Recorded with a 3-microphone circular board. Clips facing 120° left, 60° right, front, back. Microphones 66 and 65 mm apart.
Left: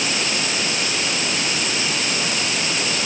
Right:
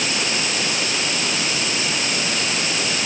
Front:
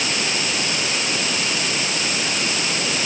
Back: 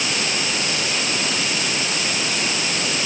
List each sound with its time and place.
Only background noise.